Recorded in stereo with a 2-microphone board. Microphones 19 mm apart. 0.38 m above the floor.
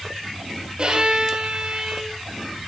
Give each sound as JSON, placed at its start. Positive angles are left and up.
{"t": 0.8, "sound": "a violin", "side_deg": -50, "distance_m": 1.1}